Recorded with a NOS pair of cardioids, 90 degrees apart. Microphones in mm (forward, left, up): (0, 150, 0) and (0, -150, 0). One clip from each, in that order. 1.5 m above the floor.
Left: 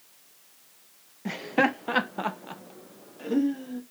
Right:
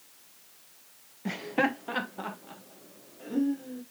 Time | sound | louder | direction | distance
1.2 | laughter | left 3 dB | 5° left | 0.8 m